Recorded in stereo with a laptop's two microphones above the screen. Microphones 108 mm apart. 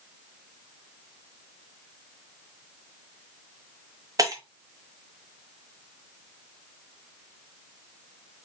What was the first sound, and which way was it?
Breaking glass, 35° right (ahead or behind).